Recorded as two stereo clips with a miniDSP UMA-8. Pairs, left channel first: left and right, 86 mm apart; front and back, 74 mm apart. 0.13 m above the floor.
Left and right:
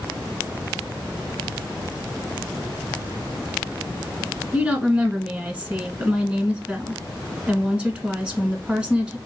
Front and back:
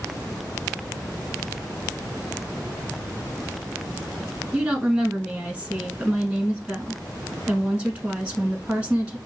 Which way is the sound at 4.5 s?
140° right.